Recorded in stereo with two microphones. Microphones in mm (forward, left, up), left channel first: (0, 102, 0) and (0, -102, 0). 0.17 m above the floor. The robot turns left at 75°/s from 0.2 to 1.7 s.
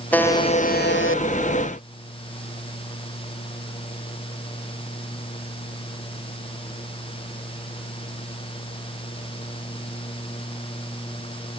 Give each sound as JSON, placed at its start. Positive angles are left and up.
{"t": 0.1, "sound": "a buzzer", "azimuth_deg": 170}